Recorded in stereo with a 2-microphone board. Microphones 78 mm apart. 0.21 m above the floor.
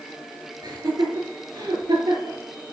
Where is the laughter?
65° right (ahead or behind), 4 m.